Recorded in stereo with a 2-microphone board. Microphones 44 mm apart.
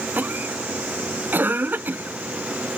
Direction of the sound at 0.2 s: 50° right (ahead or behind).